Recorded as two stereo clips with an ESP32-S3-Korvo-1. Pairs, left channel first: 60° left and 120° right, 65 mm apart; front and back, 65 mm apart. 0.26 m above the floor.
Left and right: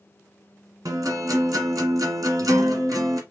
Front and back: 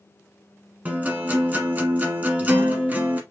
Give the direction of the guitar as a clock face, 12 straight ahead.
4 o'clock.